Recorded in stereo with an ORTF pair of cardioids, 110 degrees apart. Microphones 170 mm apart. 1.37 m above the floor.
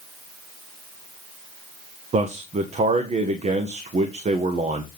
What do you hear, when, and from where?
2.1 s a man speaking: 45° right, 1.4 m